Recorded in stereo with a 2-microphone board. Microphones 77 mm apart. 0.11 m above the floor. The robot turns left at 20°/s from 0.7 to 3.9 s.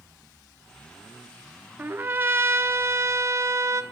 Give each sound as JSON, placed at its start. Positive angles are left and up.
{"t": 1.8, "sound": "a trumpet", "azimuth_deg": -40, "distance_m": 0.6}